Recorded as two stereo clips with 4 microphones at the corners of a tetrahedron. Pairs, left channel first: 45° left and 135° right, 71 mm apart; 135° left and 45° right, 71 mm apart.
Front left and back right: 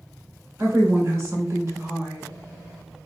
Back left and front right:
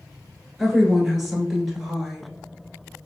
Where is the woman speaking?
130° right, 1.4 m.